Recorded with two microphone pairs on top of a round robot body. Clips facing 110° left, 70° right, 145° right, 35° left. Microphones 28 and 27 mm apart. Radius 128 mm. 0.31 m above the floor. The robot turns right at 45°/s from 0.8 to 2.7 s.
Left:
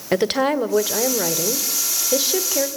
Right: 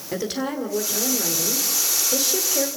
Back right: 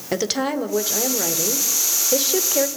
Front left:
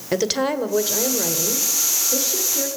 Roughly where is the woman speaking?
Left.